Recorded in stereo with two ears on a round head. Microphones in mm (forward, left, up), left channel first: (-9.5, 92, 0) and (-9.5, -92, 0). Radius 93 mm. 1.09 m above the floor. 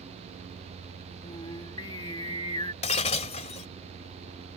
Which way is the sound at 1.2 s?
20° left (ahead or behind).